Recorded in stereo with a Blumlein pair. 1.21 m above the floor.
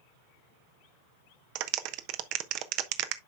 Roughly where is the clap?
Ahead right.